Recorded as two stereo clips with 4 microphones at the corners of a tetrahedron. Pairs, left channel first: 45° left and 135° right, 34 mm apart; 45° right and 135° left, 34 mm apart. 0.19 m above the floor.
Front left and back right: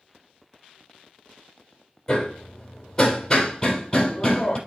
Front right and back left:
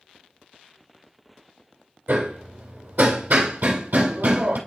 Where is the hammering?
115° left, 1.8 m.